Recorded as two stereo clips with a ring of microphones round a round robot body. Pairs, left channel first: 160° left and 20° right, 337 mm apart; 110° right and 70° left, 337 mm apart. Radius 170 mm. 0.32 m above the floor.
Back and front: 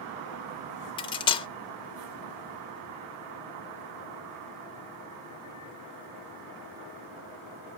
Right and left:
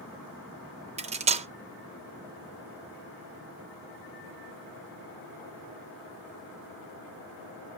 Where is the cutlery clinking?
105° left, 0.5 m.